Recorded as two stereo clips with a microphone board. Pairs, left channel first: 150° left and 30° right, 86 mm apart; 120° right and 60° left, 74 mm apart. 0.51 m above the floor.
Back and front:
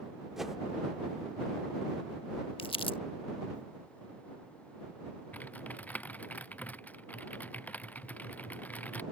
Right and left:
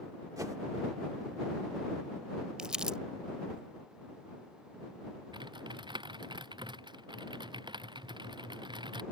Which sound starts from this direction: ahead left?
A whoosh, at 0.4 s.